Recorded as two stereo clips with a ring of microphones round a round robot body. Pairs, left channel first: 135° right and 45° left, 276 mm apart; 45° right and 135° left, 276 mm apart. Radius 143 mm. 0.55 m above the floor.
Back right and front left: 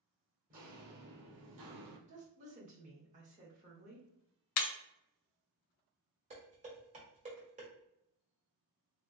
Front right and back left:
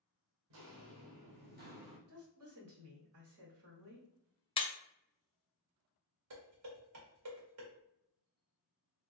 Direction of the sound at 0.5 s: 105° left.